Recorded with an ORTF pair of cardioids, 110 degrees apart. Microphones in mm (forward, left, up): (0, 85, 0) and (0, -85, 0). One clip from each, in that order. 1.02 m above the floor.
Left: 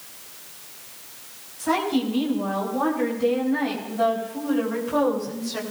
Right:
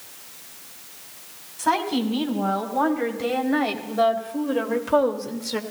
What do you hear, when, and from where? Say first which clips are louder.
1.6 s a woman speaking: right 1 dB; 65° right, 6 m